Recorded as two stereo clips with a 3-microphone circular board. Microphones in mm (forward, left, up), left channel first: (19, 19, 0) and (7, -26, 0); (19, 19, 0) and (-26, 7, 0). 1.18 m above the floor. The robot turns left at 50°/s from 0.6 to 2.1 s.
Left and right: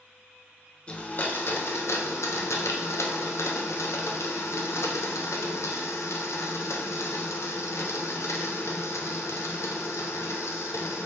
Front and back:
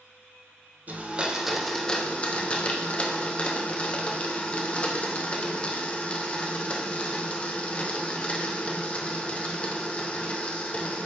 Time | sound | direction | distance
0.9 | a blender | 140° left | 0.6 m